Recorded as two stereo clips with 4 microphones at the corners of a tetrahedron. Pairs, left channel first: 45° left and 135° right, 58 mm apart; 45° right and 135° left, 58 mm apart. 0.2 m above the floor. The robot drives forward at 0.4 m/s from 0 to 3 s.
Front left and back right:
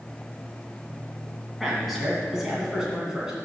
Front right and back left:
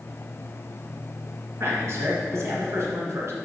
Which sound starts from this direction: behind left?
A man speaking, at 1.6 s.